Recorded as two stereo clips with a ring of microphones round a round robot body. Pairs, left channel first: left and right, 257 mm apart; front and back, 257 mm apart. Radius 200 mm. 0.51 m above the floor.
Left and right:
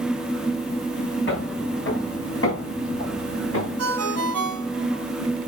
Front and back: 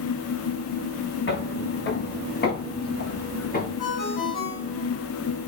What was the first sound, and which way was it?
Footsteps, 45° left.